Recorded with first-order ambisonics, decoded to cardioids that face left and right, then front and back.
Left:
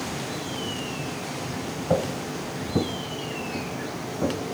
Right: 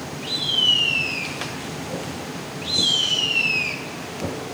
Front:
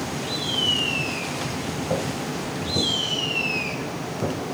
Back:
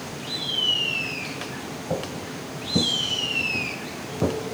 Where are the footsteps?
100° left, 1.9 m; by 4.4 s 165° left, 2.5 m.